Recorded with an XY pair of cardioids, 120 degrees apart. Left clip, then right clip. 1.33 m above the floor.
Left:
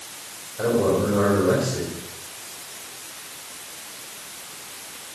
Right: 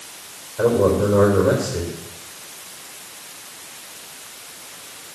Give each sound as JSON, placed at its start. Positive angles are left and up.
{"t": 0.6, "sound": "a man speaking", "azimuth_deg": -40, "distance_m": 5.0}